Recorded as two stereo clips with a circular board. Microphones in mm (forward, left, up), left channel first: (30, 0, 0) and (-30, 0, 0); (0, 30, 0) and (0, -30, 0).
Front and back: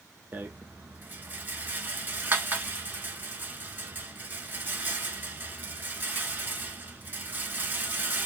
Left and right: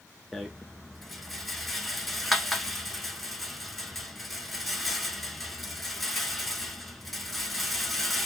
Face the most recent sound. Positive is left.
turn(degrees=180)